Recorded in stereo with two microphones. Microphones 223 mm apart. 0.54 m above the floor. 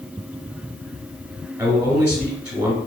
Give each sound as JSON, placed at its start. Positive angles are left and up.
{"t": 1.6, "sound": "a man speaking", "side_deg": -15, "distance_m": 1.4}